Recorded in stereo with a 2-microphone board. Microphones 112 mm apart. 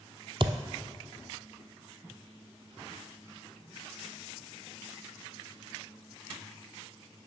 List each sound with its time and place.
0.4 s a thud: 50° right (ahead or behind), 0.6 m